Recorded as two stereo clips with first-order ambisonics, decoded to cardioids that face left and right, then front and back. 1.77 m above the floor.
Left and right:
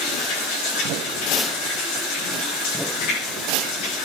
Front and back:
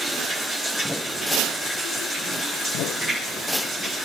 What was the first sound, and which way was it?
Running water, 85° left.